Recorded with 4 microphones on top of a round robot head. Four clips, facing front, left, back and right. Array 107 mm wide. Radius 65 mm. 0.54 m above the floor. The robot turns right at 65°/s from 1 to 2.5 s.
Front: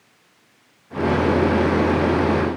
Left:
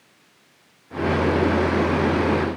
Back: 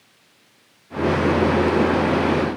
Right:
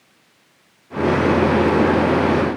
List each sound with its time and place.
Only background noise.